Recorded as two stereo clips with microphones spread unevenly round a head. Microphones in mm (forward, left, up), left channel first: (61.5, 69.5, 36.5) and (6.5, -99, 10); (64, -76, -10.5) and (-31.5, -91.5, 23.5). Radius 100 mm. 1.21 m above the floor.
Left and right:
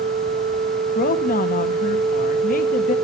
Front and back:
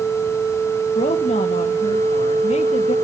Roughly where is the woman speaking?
Ahead left.